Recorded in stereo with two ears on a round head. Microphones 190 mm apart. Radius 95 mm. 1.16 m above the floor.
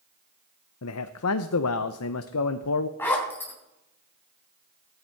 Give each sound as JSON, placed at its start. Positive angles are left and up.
{"t": 0.8, "sound": "a man speaking", "side_deg": 80, "distance_m": 0.6}
{"t": 3.0, "sound": "a zipper", "side_deg": 10, "distance_m": 3.0}